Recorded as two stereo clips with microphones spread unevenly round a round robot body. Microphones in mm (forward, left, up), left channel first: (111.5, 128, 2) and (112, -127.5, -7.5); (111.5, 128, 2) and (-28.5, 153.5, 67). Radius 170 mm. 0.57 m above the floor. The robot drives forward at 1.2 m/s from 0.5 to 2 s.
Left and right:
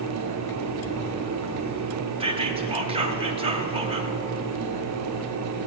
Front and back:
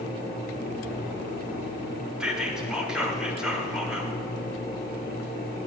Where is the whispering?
55° right, 0.6 m.